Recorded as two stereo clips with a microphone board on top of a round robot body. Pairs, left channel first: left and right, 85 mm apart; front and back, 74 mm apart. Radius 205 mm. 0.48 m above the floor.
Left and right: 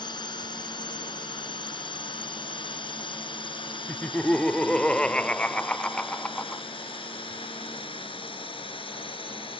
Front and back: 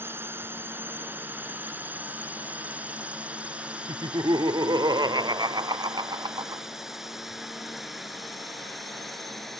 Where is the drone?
120° left; by 9.6 s 90° left.